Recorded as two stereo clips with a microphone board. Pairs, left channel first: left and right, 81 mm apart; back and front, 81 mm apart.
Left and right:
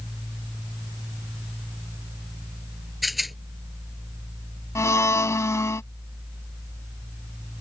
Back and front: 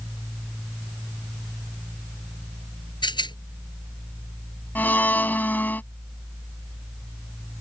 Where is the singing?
No singing in this recording.